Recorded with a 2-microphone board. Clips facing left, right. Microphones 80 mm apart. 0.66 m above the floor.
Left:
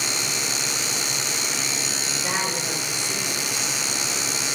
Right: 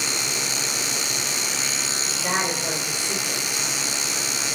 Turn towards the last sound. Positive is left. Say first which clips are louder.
# right 3 dB
turn(degrees=-15)  # may be behind; listen again after turning